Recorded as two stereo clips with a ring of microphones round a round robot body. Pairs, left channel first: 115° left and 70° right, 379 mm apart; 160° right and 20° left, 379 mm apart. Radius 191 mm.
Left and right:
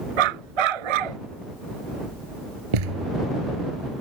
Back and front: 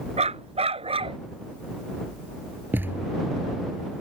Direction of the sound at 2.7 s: 60° right.